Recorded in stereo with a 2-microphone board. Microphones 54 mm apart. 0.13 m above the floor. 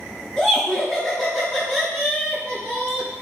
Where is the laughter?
20° left (ahead or behind), 1.7 m; by 3.1 s 30° right (ahead or behind), 1.8 m.